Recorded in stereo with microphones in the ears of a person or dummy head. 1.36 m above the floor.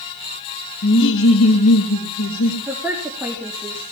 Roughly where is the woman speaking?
Centre.